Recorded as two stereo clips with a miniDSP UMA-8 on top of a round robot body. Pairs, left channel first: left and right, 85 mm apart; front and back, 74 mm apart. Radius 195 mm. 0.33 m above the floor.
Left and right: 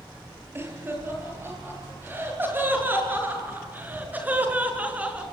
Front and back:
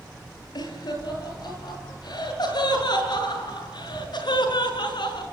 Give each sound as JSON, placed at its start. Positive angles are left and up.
{"t": 0.6, "sound": "laughter", "azimuth_deg": -25, "distance_m": 8.5}